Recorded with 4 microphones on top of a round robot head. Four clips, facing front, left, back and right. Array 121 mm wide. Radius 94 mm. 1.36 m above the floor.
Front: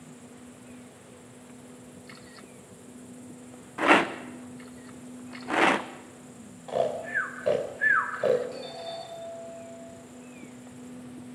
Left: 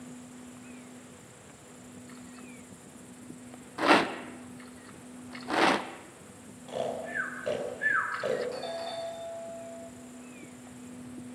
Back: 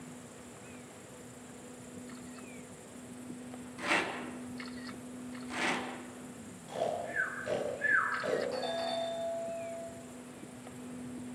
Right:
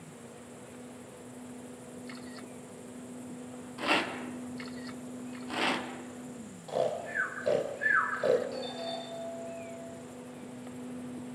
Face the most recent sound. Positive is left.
turn(degrees=140)